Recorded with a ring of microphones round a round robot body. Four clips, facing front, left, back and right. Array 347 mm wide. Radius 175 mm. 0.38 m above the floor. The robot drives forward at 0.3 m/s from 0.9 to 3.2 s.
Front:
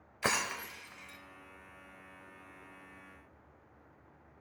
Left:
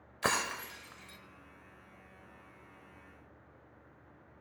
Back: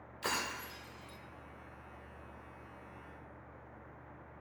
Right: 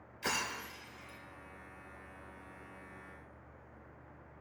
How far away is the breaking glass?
About 0.7 m.